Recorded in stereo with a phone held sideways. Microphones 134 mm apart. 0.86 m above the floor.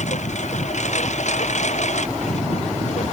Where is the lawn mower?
60° left (ahead or behind).